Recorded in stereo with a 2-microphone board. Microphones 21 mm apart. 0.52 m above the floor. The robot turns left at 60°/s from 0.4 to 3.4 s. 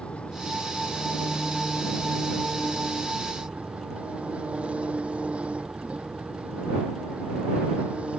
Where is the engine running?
85° left; by 8.2 s 95° right.